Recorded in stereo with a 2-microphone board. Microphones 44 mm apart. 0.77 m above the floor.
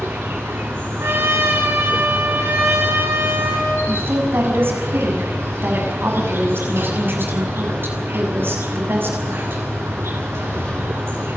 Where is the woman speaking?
55° right (ahead or behind), 6.5 m.